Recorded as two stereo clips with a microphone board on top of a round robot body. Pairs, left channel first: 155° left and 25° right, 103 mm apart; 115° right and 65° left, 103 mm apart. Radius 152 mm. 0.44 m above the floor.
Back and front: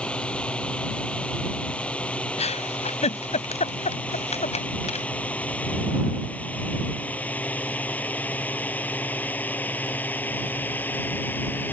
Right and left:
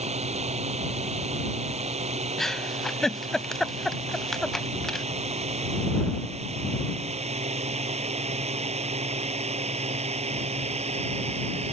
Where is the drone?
80° left; by 11.7 s 85° left.